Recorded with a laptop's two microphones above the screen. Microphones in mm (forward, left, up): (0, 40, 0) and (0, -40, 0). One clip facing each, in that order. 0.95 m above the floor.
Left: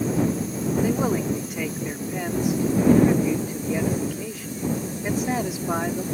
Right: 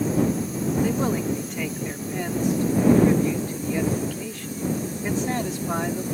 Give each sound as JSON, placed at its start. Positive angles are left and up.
{"t": 0.8, "sound": "a man speaking", "side_deg": 5}